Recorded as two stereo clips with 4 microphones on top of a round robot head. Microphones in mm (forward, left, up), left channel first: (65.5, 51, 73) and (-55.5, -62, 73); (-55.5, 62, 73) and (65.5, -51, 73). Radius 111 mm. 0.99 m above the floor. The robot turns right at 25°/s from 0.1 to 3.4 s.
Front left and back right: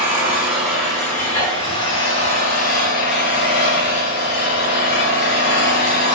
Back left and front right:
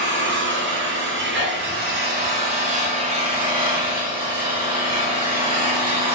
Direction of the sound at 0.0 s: 60° right.